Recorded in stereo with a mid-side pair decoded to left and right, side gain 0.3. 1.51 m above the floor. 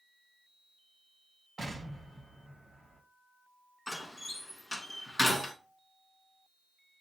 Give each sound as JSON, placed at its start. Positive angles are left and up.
{"t": 1.6, "sound": "an explosion", "azimuth_deg": -40, "distance_m": 2.0}
{"t": 3.9, "sound": "a door slam", "azimuth_deg": 30, "distance_m": 1.5}